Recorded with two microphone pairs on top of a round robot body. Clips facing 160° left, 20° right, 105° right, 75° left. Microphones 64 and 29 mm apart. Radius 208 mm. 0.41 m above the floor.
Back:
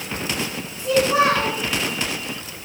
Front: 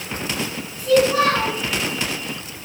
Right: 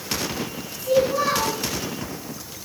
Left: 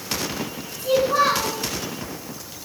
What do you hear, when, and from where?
0.8 s a child speaking: 100° left, 4 m